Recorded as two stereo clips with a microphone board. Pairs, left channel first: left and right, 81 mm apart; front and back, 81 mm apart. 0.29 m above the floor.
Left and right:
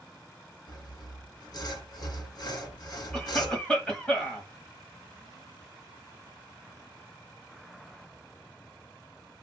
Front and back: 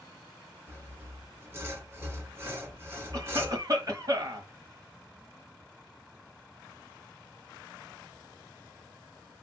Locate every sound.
0.7 s sawing: 120° left, 1.4 m
3.1 s a cough: 160° left, 1.4 m